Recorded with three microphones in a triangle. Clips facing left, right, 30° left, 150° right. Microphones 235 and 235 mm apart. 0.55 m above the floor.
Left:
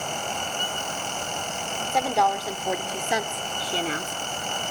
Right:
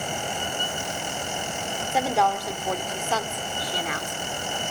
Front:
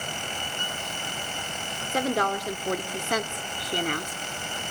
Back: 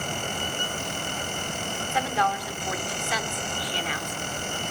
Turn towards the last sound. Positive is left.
turn(degrees=50)